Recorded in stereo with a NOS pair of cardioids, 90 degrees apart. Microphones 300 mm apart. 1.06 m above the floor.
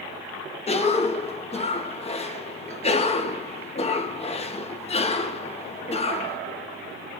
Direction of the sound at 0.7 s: 20° left.